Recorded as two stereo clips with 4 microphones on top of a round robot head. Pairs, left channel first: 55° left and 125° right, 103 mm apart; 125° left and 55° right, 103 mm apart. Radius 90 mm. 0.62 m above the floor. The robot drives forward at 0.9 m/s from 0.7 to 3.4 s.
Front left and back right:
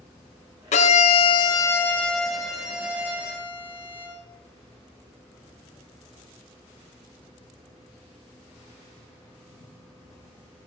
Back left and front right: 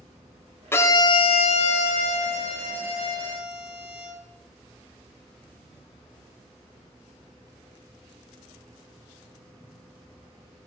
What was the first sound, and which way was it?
A violin, 55° left.